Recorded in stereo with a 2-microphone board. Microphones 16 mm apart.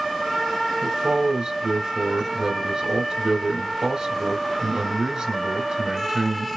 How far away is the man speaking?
About 2 m.